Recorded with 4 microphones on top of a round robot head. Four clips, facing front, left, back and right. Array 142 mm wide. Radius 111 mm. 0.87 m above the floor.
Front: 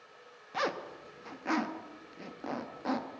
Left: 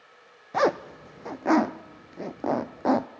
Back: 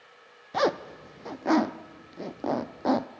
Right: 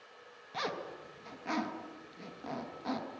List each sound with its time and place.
0.5 s a zipper: 120° left, 0.5 m